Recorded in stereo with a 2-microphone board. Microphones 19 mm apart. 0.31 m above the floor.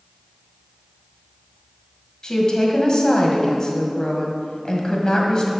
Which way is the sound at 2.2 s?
35° left (ahead or behind).